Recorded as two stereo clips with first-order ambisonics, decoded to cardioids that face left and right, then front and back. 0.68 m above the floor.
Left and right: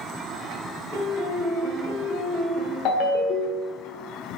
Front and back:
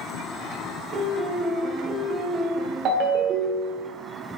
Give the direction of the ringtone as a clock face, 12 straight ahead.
8 o'clock.